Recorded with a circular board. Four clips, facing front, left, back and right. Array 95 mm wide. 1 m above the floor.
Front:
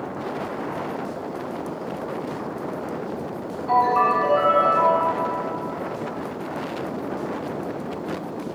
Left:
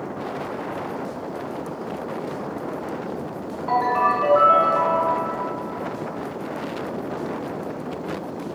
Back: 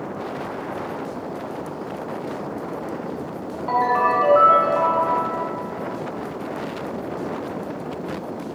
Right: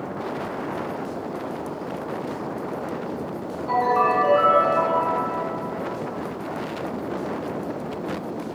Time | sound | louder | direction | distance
3.7 | a ringtone | even, front 1 dB | 140° left | 1.0 m